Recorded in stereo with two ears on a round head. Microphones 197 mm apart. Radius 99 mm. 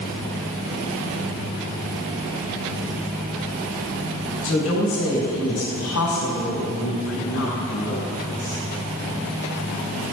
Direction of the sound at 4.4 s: 80° left.